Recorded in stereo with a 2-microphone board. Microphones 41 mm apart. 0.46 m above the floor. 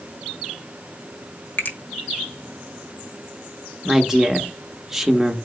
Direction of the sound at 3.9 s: 10° right (ahead or behind).